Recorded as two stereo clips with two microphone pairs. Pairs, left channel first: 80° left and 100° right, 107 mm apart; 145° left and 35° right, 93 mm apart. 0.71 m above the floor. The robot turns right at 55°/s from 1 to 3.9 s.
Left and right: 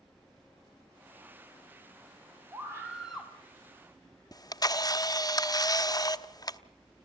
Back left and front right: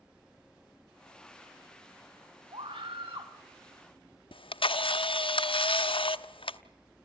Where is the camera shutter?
130° left, 1.0 m.